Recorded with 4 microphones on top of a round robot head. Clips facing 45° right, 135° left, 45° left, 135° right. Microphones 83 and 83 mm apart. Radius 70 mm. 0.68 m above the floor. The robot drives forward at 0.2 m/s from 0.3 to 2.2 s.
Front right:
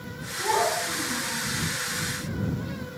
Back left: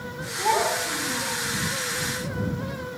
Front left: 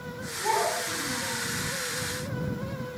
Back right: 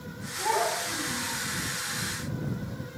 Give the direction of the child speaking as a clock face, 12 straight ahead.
7 o'clock.